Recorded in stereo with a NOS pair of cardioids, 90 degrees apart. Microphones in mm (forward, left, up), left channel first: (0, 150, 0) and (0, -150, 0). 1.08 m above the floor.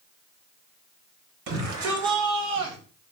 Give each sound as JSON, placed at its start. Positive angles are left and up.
{"t": 1.5, "sound": "a shout", "azimuth_deg": -65, "distance_m": 6.5}